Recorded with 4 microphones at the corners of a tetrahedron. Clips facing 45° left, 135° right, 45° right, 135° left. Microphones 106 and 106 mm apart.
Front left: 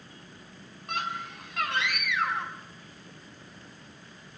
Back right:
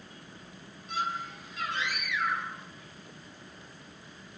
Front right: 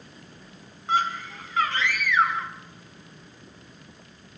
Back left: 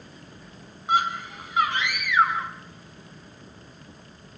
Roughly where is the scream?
Ahead left.